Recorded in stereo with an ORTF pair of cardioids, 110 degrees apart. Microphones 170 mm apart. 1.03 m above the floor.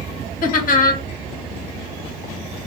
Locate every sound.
0.4 s laughter: 55° left, 1.2 m